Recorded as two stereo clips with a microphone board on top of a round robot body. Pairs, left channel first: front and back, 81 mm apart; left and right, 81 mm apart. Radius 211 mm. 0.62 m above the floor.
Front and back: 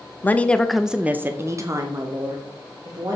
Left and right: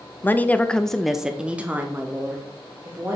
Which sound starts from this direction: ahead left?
A woman speaking, at 0.2 s.